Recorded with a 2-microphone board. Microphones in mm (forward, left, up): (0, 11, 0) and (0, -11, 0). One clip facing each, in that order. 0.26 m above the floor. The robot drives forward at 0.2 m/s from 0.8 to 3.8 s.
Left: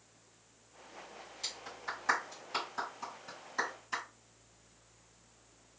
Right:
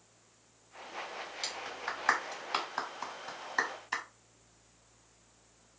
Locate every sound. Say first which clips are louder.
1.4 s a clap: right 2 dB; 45° right (ahead or behind), 1.6 m